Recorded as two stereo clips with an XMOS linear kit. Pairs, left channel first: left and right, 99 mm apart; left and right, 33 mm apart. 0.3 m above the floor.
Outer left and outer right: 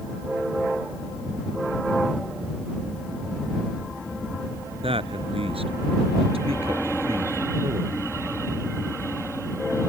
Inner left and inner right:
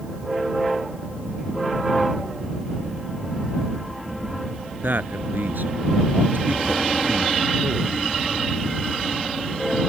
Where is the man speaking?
70° right (ahead or behind); by 8.0 s 75° right (ahead or behind).